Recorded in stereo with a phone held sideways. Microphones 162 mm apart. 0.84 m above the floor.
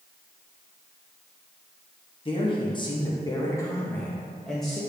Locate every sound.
2.2 s a man speaking: 30° left (ahead or behind), 1.3 m; by 4.8 s centre (ahead or behind), 1.2 m